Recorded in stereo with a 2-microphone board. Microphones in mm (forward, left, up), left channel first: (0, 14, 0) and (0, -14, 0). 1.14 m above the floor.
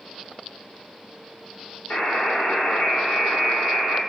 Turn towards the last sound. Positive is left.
turn(degrees=60)  # may be behind; listen again after turning